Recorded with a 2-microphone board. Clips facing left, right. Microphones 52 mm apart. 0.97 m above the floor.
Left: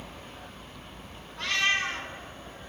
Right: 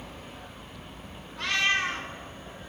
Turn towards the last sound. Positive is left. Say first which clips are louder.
# right 1 dB
turn(degrees=-10)  # may be behind; listen again after turning